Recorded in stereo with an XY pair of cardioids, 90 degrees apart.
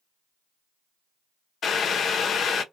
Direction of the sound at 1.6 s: 65° left.